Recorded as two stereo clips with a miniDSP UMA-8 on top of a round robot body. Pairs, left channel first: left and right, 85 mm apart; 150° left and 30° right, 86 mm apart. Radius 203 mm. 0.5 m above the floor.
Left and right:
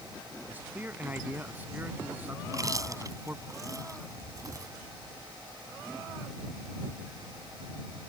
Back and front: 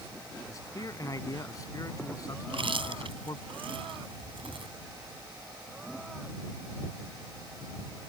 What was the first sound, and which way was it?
A man speaking, 160° right.